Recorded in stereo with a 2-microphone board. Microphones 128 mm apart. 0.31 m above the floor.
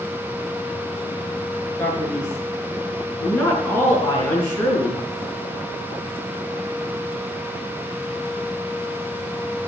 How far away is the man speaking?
About 5.5 m.